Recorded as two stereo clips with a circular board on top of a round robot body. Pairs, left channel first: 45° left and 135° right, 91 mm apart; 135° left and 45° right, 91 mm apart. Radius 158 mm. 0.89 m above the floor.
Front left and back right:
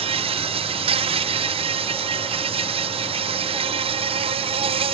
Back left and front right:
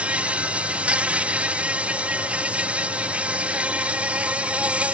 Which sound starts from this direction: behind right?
An insect, at 0.0 s.